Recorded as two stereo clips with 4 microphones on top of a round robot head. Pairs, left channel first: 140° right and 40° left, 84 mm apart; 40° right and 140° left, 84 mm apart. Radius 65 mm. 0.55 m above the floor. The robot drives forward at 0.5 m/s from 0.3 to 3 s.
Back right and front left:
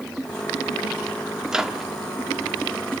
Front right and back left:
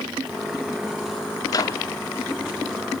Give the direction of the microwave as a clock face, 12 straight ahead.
1 o'clock.